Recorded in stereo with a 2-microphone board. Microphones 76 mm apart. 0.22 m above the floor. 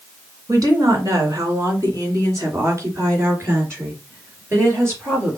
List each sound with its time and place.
0.5 s a woman speaking: 55° right (ahead or behind), 2 m; by 5.4 s 30° right (ahead or behind), 4 m